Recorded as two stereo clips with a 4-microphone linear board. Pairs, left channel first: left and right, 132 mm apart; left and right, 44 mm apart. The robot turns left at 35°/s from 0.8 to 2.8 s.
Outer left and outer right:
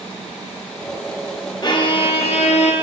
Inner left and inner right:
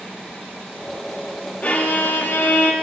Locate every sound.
1.6 s a violin: 145° left, 0.9 m; by 2.7 s 105° left, 0.9 m